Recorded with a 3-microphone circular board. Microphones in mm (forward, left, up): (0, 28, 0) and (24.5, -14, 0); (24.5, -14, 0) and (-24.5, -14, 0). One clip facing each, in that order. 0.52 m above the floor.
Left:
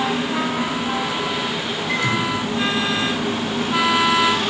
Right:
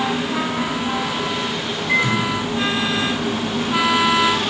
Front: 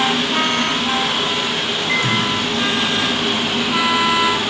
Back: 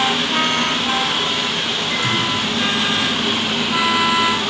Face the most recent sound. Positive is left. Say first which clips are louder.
# right 3 dB, front 3 dB
turn(degrees=15)